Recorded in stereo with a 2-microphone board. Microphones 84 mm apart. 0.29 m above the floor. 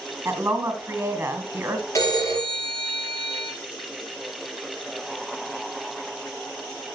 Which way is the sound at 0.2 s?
25° right (ahead or behind).